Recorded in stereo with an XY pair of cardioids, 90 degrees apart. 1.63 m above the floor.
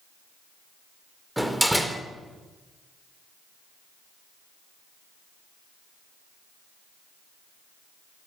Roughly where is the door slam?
Ahead.